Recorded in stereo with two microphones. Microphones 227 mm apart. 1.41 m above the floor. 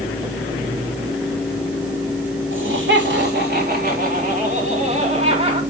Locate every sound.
2.5 s laughter: 60° right (ahead or behind), 3 m; by 5.6 s 25° right (ahead or behind), 4.5 m